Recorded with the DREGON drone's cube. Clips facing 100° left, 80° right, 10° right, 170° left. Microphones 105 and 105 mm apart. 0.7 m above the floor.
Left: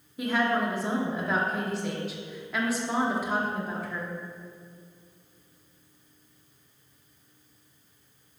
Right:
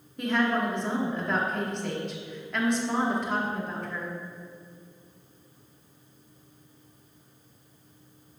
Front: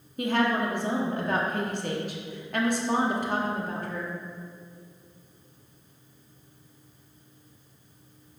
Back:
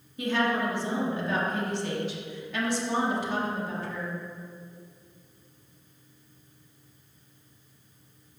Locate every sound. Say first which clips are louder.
0.2 s a woman speaking: even, front 2 dB; 15° left, 0.9 m